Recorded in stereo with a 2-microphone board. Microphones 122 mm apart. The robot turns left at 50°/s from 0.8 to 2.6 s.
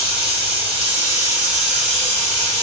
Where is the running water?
135° right, 1.2 m; by 2.6 s 135° left, 1.2 m.